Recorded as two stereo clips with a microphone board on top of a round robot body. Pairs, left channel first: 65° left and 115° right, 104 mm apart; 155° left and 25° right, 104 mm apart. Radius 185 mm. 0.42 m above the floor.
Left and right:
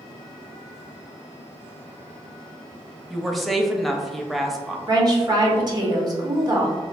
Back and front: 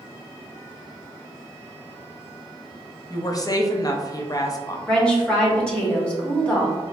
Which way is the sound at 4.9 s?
125° right.